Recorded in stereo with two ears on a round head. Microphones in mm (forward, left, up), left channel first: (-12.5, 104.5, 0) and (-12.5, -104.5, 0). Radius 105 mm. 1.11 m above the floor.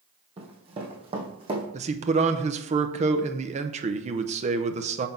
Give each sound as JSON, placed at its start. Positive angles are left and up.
{"t": 0.4, "sound": "running footsteps", "side_deg": -25, "distance_m": 2.0}
{"t": 1.7, "sound": "a man speaking", "side_deg": -30, "distance_m": 0.7}